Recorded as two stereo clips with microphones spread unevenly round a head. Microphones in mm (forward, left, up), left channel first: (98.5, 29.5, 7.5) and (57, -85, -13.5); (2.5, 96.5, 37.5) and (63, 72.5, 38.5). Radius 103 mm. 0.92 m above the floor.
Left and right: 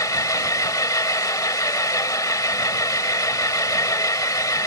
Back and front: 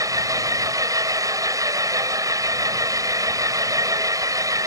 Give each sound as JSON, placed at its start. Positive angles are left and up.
{"t": 0.0, "sound": "an engine running", "azimuth_deg": 10}